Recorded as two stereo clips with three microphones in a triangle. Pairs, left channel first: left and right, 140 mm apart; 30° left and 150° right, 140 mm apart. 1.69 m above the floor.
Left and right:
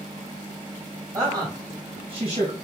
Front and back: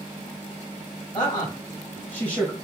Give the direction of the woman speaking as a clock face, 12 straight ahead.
1 o'clock.